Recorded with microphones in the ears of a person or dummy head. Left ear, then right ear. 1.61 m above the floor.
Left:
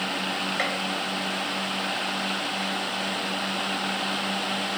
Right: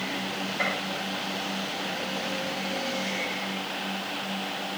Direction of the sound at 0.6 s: 65° left (ahead or behind).